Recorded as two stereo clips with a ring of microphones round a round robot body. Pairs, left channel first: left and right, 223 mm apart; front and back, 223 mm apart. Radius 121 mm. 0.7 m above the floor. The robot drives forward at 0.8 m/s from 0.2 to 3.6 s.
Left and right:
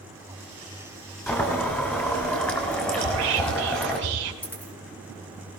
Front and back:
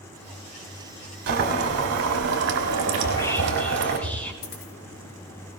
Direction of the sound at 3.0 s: 75° right.